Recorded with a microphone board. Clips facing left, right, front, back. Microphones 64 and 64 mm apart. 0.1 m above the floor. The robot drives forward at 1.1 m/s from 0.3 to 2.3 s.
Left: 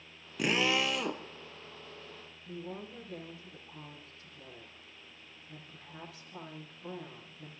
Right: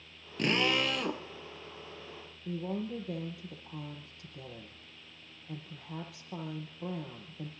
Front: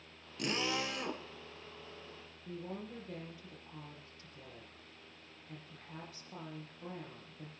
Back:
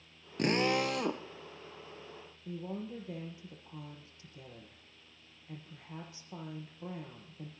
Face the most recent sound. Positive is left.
turn(degrees=-110)